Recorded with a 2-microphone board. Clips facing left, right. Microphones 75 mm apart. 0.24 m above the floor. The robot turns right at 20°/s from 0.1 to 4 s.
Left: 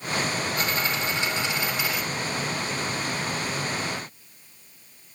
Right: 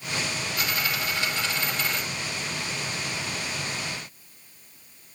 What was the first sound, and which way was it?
A dropped coin, 35° left (ahead or behind).